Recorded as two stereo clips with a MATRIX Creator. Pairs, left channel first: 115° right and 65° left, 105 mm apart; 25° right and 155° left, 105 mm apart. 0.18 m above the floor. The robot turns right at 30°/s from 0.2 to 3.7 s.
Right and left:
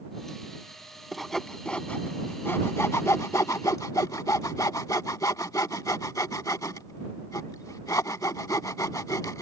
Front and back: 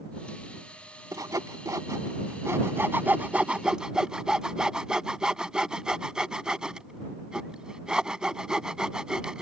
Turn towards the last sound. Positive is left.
turn(degrees=-125)